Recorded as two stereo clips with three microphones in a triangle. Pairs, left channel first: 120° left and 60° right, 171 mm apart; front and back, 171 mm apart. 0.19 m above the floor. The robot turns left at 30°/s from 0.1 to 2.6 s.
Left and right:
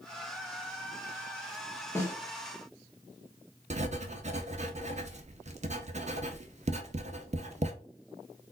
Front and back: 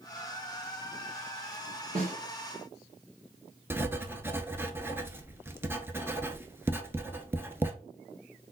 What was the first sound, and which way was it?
A snare drum, 165° right.